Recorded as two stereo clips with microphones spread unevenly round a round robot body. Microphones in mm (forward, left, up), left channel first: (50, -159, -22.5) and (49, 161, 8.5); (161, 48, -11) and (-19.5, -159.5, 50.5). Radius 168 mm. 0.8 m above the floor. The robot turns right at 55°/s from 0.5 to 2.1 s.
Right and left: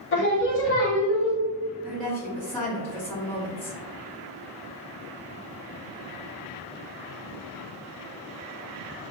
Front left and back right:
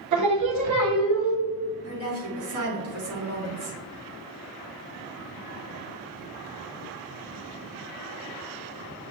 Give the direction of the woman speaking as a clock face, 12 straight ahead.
6 o'clock.